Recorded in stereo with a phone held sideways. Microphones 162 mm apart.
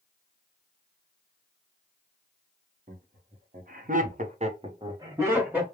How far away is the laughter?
About 1.4 m.